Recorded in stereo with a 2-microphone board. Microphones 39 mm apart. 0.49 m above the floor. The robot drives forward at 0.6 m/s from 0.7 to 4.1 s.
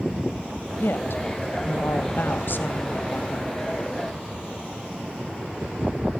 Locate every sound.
0.8 s a woman speaking: 70° left (ahead or behind), 2 m; by 3.6 s 50° left (ahead or behind), 2.5 m